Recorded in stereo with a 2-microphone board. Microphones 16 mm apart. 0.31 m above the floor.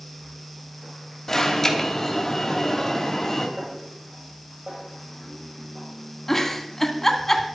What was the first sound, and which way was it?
An alarm, 25° left (ahead or behind).